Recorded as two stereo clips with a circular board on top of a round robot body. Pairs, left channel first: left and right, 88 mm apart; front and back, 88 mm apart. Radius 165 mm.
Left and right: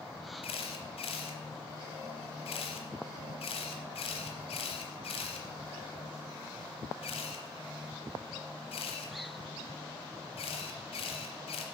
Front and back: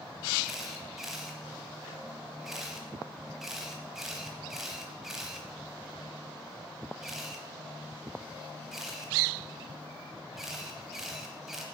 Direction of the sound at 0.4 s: 95° left.